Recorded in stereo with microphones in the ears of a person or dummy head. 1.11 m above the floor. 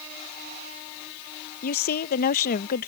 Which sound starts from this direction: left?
A woman speaking, at 1.6 s.